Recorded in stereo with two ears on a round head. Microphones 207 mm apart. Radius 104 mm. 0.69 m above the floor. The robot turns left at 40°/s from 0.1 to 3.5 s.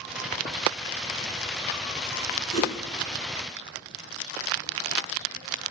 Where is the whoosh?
75° right (ahead or behind), 3.5 m; by 2.7 s 65° right (ahead or behind), 3.5 m.